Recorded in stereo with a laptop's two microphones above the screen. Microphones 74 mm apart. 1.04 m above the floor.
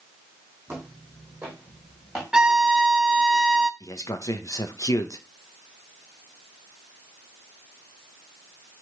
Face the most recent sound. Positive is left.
turn(degrees=50)  # may be behind; listen again after turning